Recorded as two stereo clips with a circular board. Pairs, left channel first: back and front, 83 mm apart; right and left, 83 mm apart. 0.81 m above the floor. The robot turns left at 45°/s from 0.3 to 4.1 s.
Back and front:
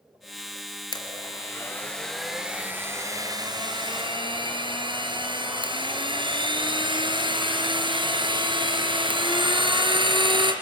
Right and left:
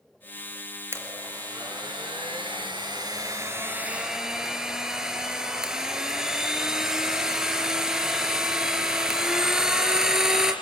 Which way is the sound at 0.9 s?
150° left.